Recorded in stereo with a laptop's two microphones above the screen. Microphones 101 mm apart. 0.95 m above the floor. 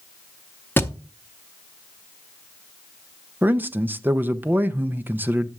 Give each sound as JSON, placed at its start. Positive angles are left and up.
{"t": 0.8, "sound": "a thud", "side_deg": 20, "distance_m": 0.6}
{"t": 3.4, "sound": "a man speaking", "side_deg": -20, "distance_m": 0.5}